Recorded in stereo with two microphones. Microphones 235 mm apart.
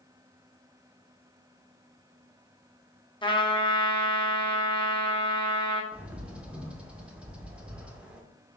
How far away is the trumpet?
About 0.5 m.